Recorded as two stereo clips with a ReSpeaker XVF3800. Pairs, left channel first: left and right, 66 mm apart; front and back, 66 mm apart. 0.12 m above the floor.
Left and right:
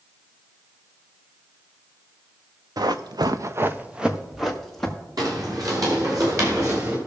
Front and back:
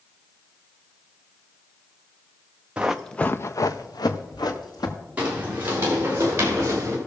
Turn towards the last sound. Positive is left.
turn(degrees=-130)